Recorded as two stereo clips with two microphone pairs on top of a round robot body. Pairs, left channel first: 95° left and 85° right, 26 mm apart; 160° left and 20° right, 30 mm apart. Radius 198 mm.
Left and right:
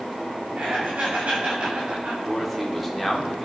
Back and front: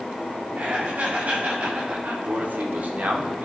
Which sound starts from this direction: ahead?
A man speaking, at 2.2 s.